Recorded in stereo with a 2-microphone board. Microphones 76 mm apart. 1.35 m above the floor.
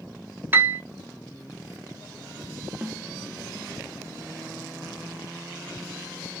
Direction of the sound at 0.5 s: 30° right (ahead or behind).